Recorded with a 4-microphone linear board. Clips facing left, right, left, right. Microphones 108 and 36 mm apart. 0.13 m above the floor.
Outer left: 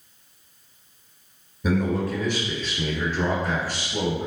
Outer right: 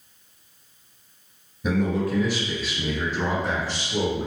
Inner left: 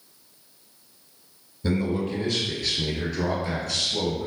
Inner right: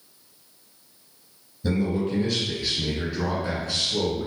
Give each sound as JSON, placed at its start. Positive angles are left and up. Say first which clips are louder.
{"t": 1.6, "sound": "a man speaking", "louder": "even, inner right 1 dB", "side_deg": 5, "distance_m": 1.8}